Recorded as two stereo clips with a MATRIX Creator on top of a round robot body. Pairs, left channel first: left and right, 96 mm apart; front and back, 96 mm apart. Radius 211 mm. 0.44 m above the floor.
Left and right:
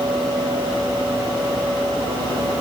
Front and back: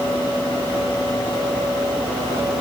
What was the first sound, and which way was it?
Only background noise.